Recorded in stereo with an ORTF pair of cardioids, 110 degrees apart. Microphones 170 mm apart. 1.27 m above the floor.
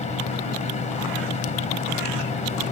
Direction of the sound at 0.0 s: 45° left.